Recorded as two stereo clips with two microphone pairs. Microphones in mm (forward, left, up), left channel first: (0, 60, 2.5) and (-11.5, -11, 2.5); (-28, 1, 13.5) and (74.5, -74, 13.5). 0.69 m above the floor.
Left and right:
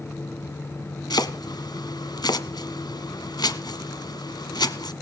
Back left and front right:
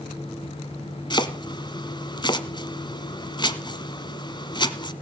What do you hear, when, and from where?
1.1 s chopping: 90° left, 1.5 m